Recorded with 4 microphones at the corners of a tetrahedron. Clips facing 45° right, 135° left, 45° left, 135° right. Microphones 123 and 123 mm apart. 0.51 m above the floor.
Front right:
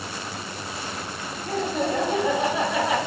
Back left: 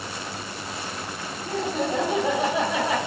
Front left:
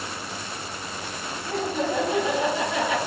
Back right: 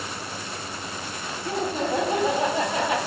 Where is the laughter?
160° right, 1.5 m; by 3.0 s 170° right, 2.5 m.